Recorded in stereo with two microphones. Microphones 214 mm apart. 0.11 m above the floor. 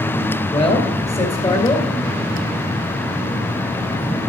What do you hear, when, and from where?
0.5 s a man speaking: 25° left (ahead or behind), 2.5 m